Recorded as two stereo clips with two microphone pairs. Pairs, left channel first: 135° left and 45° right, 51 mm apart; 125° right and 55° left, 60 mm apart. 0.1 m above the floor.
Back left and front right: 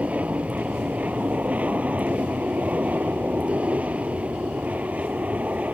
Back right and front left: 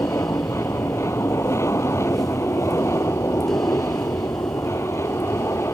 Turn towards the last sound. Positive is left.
turn(degrees=-100)